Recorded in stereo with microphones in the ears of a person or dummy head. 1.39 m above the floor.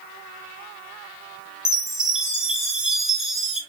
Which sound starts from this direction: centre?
A chime, at 1.6 s.